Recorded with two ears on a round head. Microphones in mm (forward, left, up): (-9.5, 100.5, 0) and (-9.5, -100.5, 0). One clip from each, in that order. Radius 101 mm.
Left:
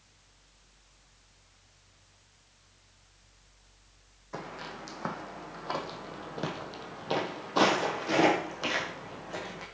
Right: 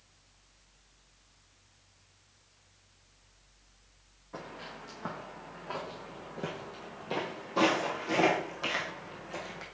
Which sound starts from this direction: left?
Footsteps, at 4.3 s.